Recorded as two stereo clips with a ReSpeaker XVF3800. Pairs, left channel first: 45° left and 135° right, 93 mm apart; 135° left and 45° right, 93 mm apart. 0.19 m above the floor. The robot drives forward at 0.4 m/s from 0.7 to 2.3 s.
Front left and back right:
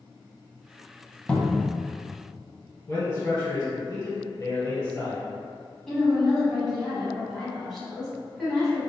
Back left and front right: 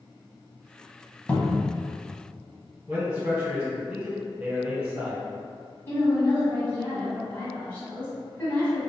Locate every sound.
1.3 s a cupboard door: 95° left, 0.5 m; by 1.7 s 135° left, 0.5 m
2.9 s a man speaking: 20° left, 1.4 m
5.9 s a woman speaking: 125° left, 1.2 m